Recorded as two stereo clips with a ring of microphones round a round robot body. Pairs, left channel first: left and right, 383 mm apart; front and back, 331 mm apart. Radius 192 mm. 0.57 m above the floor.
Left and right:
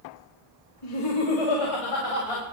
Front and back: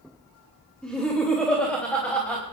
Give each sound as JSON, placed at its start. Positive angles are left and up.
{"t": 0.8, "sound": "laughter", "azimuth_deg": 85, "distance_m": 3.0}